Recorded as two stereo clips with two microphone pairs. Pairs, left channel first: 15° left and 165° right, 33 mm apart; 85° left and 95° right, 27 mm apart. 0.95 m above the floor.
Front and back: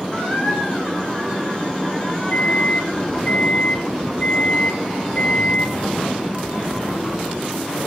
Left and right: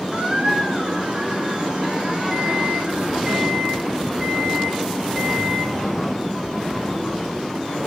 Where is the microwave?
5° right, 7 m.